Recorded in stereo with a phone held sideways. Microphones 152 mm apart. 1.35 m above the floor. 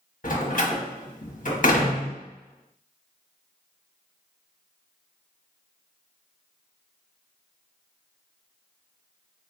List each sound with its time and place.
0.2 s a door slam: 60° left (ahead or behind), 1.1 m